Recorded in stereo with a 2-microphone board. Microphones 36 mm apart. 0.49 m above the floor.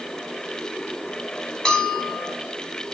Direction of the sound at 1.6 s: 20° left (ahead or behind).